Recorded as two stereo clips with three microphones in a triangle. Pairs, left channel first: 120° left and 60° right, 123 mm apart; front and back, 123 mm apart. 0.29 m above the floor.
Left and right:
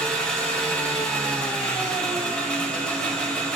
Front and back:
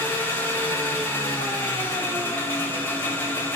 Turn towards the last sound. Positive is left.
turn(degrees=50)